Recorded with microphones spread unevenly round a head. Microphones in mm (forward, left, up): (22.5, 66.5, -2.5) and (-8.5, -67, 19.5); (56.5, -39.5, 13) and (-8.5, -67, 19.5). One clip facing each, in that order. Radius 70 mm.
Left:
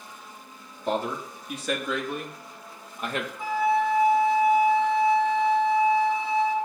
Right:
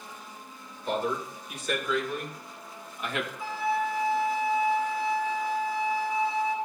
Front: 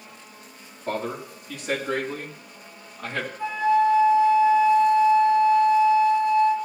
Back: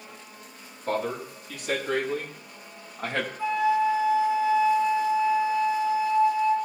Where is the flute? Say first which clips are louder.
Left 7 dB, front 3 dB; 120° left, 3 m.